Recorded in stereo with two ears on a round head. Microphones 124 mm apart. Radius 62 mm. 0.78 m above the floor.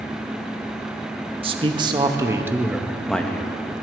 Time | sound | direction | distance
1.4 | a man speaking | 40° right (ahead or behind) | 1.1 m